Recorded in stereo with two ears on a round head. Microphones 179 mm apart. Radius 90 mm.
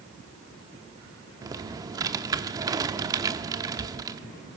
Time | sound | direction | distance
1.4 | typing on a keyboard | 20° right (ahead or behind) | 1.0 m